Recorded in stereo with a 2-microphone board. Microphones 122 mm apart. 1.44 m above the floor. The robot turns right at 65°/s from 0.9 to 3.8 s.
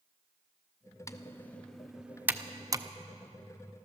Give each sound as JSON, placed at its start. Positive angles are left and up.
{"t": 1.1, "sound": "typing on a keyboard", "side_deg": 25, "distance_m": 0.5}